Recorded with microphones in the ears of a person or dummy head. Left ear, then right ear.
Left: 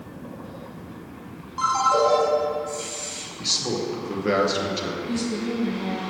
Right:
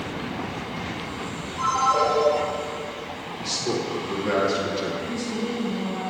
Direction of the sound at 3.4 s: 15° left (ahead or behind).